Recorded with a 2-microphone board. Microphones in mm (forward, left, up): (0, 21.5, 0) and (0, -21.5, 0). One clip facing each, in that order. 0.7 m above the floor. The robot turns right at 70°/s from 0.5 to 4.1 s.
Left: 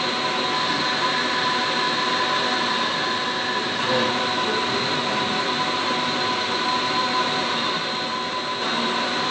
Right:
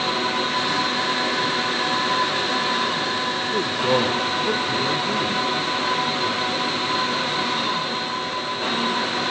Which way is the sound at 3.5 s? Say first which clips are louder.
Right 4 dB; 55° right.